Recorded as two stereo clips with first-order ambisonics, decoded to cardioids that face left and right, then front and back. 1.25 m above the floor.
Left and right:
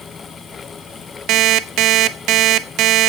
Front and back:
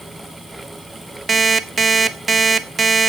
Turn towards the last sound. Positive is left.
turn(degrees=-110)